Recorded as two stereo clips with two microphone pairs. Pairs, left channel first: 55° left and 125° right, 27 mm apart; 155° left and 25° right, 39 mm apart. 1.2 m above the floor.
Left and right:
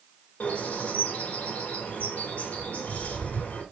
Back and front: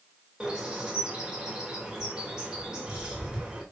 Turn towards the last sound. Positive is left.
turn(degrees=50)